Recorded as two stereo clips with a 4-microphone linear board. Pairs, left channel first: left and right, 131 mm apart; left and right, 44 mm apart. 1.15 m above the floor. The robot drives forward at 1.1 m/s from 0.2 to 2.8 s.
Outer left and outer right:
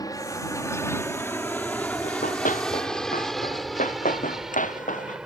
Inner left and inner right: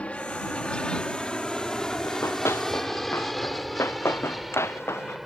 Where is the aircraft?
30° left (ahead or behind); by 5.3 s 5° right (ahead or behind).